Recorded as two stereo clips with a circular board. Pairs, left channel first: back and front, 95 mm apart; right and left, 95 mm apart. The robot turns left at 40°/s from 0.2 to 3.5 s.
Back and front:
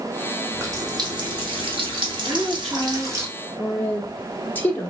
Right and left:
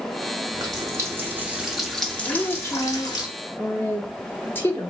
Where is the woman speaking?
80° right, 0.9 m; by 4.9 s 130° right, 0.9 m.